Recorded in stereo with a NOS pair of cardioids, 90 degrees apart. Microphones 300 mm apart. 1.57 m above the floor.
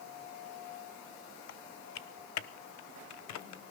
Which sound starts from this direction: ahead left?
Typing on a keyboard, at 1.5 s.